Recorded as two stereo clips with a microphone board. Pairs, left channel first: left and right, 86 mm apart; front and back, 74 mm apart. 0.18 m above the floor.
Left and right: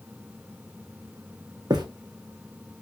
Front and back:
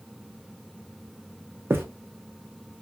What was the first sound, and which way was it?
Footsteps, 120° right.